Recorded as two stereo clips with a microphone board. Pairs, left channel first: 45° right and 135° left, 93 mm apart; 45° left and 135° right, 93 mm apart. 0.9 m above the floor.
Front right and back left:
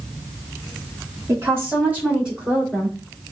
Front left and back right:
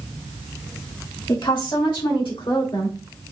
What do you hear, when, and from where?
1.3 s a woman speaking: 80° left, 2 m; by 3.0 s 45° left, 3 m